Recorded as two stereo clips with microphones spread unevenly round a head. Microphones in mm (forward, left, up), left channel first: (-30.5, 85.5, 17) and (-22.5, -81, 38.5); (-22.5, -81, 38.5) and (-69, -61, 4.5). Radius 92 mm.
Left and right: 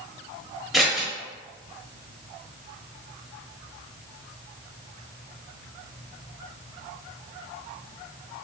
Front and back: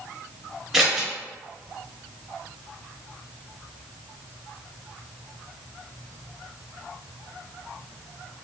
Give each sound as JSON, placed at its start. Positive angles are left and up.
{"t": 0.7, "sound": "scissors", "azimuth_deg": -10, "distance_m": 0.8}